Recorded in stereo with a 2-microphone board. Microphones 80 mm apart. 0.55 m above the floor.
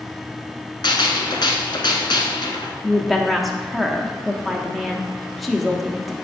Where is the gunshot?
70° left (ahead or behind), 1.0 m.